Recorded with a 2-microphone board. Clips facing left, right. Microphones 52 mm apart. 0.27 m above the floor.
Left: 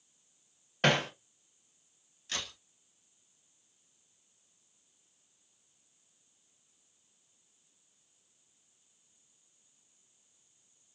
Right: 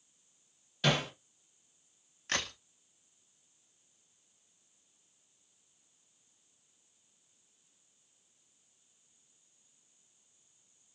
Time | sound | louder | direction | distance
0.8 | hammering | left 3 dB | 50° left (ahead or behind) | 0.6 m
2.3 | a crack | right 5 dB | 55° right (ahead or behind) | 0.7 m